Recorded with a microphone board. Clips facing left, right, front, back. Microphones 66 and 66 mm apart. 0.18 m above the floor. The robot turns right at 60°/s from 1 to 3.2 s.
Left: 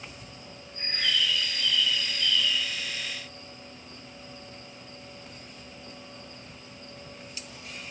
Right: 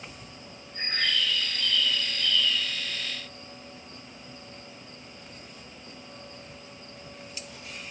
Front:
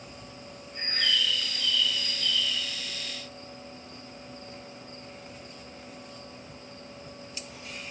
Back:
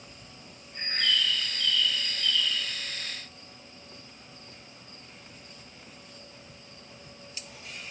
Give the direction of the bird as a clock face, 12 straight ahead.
3 o'clock.